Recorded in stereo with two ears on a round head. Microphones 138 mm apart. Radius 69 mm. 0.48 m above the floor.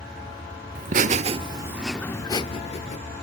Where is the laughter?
55° right (ahead or behind), 1.3 m; by 3.0 s 45° left (ahead or behind), 1.4 m.